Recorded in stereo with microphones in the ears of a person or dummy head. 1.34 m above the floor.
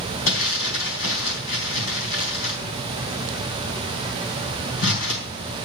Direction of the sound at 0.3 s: 70° left (ahead or behind).